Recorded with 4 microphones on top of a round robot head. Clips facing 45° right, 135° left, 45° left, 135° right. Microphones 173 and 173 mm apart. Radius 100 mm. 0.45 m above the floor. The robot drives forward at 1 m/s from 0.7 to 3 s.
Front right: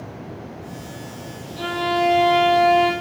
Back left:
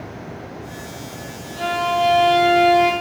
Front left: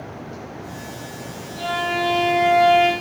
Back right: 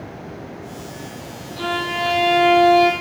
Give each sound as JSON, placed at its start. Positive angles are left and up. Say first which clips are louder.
{"t": 1.6, "sound": "a violin", "louder": "back left 1 dB, front left 1 dB", "azimuth_deg": -95, "distance_m": 3.5}